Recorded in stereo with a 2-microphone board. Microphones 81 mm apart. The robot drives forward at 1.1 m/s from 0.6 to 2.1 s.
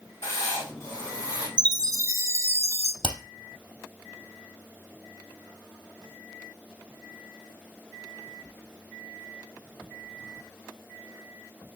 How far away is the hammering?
About 3 m.